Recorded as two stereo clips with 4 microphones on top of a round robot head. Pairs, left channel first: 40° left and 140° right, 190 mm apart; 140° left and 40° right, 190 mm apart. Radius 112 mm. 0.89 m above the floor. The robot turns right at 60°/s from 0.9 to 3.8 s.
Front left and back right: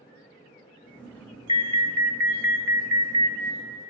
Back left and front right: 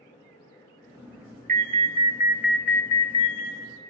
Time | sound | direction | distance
1.5 | an alarm | 15° right | 0.9 m